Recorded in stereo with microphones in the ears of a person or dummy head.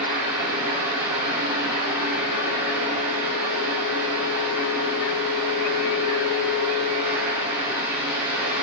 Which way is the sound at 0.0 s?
20° right (ahead or behind).